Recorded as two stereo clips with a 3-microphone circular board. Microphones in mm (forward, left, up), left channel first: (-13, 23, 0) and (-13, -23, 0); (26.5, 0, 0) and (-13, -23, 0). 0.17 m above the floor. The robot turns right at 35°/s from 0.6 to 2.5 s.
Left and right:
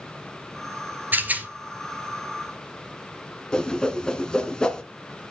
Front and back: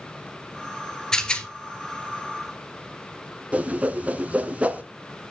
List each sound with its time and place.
1.1 s a rattle: 45° right, 1.6 m; by 1.5 s 35° right, 1.6 m
3.5 s a whoosh: 160° left, 1.3 m